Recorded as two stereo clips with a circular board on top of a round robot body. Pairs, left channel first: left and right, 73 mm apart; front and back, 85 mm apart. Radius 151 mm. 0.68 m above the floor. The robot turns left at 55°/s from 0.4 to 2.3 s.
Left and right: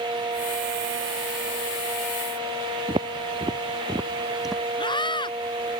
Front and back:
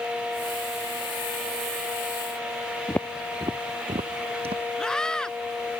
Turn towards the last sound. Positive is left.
turn(degrees=85)